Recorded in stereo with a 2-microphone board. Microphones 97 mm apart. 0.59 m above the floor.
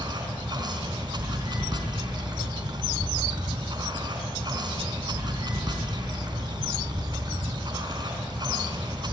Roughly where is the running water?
Right.